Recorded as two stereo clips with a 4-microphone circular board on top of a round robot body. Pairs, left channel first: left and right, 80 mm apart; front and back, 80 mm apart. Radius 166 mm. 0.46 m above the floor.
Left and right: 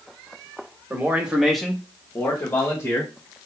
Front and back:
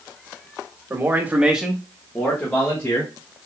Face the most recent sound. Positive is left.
turn(degrees=45)